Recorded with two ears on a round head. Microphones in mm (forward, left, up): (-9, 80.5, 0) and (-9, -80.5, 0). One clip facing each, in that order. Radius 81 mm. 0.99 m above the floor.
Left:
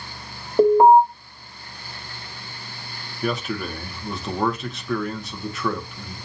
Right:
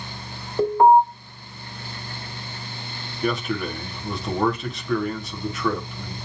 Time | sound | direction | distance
0.6 | an alarm | 20° left (ahead or behind) | 1.7 m
3.2 | a man speaking | centre (ahead or behind) | 0.9 m